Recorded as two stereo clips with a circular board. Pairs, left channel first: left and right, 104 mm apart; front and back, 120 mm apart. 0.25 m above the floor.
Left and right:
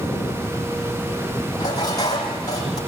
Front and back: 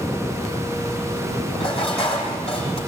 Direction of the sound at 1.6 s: 40° left.